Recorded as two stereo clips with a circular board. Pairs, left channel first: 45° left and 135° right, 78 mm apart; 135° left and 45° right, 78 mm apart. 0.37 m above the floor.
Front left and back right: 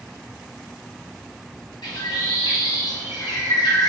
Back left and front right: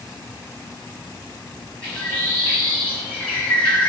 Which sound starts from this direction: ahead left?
A bird, at 1.8 s.